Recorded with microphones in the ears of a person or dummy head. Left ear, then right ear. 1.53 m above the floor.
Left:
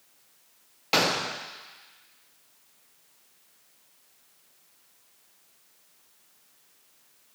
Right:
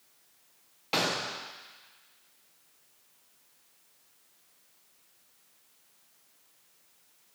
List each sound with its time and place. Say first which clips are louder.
0.9 s a gunshot: left 5 dB; 10° left (ahead or behind), 0.5 m